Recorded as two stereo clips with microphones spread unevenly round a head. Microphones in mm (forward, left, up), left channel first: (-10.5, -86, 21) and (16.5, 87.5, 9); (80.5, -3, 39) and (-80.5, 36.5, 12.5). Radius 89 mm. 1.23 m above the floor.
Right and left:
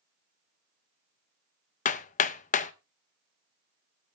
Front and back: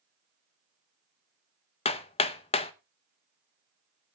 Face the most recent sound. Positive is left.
turn(degrees=-60)